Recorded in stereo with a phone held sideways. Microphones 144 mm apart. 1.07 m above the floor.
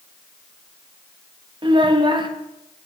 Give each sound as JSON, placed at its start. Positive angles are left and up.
{"t": 1.6, "sound": "a child speaking", "side_deg": -30, "distance_m": 1.0}